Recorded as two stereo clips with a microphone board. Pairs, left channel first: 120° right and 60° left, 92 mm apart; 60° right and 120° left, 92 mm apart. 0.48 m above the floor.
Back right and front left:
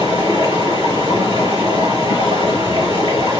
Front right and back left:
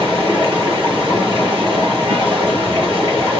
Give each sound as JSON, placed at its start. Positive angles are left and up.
{"t": 0.0, "sound": "running water", "azimuth_deg": 75, "distance_m": 4.0}